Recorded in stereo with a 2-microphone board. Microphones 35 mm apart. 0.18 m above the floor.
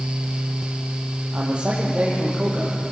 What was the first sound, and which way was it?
A man speaking, 35° right (ahead or behind).